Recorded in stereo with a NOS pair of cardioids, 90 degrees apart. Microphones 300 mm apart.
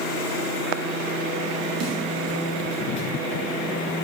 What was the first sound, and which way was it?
A snare drum, 55° right.